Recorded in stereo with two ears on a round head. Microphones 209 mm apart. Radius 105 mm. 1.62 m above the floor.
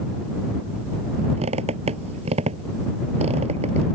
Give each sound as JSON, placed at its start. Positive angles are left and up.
{"t": 1.4, "sound": "a squeak", "side_deg": -30}